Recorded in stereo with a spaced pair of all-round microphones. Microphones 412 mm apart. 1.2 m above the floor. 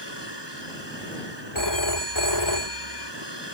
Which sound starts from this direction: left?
A phone ringing, at 1.6 s.